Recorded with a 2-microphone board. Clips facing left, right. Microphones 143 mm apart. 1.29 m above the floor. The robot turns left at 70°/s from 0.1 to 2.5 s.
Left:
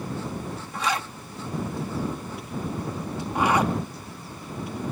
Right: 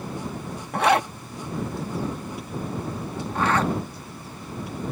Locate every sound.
0.7 s a zipper: 60° right (ahead or behind); by 3.7 s 15° left (ahead or behind)